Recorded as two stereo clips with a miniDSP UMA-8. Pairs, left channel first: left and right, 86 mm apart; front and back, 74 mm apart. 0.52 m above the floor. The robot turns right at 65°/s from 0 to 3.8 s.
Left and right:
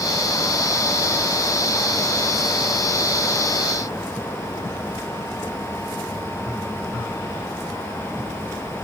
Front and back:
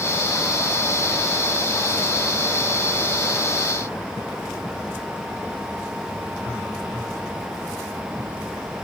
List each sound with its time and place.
Only background noise.